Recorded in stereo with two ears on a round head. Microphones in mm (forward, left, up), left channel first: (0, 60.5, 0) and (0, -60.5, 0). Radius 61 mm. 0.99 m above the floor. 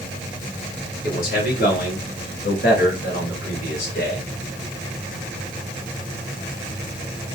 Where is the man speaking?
70° left (ahead or behind), 4.5 m; by 4.3 s 80° left, 4 m.